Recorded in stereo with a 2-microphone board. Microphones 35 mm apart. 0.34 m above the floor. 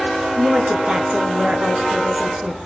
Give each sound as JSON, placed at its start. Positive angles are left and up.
{"t": 0.4, "sound": "a woman speaking", "side_deg": -40, "distance_m": 5.0}